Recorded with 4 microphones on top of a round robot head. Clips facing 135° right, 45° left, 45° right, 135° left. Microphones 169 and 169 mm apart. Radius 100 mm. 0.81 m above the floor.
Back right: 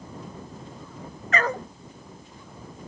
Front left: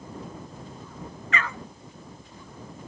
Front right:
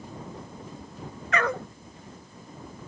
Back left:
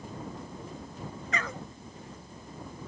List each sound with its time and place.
1.3 s a dog barking: 80° right